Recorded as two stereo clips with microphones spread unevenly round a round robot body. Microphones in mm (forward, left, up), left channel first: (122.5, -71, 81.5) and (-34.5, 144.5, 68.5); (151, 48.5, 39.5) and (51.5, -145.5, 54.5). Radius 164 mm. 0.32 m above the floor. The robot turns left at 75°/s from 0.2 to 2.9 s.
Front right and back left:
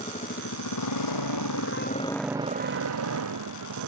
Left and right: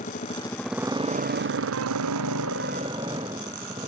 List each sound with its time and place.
0.0 s a motorcycle: 10° left; by 3.9 s 165° left